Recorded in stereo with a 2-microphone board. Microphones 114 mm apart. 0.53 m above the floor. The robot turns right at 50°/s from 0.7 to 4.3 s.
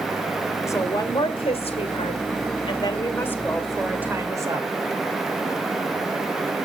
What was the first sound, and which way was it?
A woman speaking, 30° left.